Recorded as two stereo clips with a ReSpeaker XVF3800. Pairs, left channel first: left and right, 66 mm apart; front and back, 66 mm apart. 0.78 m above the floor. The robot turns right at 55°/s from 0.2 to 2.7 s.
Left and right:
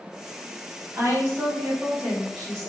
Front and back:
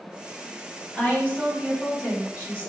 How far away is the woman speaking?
About 1.4 m.